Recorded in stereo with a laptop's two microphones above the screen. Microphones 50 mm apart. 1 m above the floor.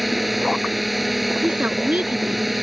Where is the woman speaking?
30° right (ahead or behind).